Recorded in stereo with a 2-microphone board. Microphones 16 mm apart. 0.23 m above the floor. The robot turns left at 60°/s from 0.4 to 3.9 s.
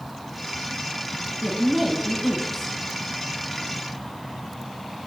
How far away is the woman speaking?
About 2.0 m.